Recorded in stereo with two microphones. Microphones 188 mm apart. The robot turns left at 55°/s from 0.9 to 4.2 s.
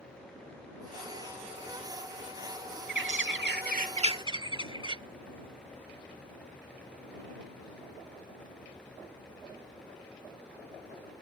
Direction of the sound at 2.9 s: 80° right.